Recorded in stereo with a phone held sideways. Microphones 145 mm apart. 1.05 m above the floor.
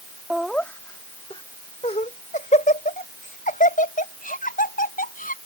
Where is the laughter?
5° right (ahead or behind); by 5.4 s 75° left (ahead or behind).